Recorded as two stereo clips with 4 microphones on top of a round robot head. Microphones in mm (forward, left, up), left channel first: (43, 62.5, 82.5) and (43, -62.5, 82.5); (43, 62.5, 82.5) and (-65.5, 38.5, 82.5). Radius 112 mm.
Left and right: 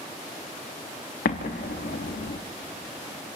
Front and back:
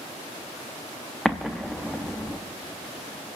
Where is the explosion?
100° left, 0.6 m.